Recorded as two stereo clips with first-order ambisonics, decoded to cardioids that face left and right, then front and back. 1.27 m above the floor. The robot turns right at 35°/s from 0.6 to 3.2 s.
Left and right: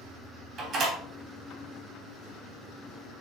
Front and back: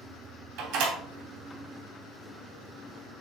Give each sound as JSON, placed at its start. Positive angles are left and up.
{"t": 0.6, "sound": "a door slam", "azimuth_deg": -160, "distance_m": 3.0}